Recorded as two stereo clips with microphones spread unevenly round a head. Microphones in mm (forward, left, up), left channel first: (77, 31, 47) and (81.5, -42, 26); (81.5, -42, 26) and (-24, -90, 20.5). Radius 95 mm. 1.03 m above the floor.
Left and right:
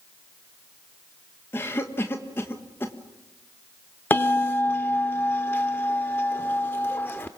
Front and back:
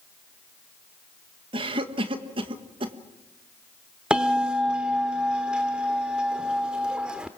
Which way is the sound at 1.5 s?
165° left.